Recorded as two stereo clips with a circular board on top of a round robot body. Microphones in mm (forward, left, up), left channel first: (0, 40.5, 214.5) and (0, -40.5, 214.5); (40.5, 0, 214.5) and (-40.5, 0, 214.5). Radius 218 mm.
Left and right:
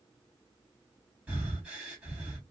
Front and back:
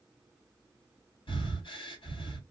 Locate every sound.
1.3 s breathing: 15° right, 1.7 m